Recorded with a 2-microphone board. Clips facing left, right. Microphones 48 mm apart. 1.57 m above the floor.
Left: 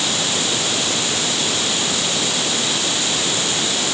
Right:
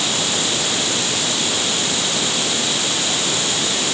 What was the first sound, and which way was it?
Only background noise.